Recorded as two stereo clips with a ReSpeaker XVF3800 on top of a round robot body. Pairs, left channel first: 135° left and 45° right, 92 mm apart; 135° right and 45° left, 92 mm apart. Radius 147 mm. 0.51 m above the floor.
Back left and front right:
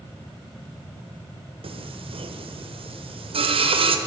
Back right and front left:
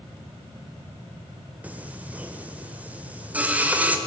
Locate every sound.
1.6 s singing: 30° right, 1.3 m